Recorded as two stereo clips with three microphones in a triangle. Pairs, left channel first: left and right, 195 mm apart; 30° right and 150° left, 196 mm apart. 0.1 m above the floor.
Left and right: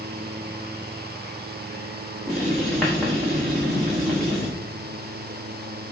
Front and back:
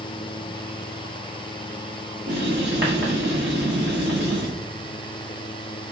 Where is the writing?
175° left, 4.5 m.